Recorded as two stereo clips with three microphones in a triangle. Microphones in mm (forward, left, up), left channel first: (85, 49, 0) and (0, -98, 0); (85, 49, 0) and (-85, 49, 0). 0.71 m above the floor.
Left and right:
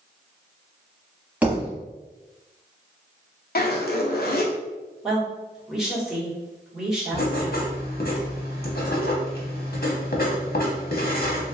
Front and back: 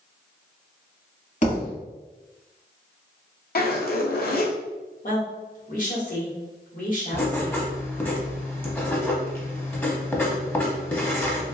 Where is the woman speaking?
35° right, 1.4 m.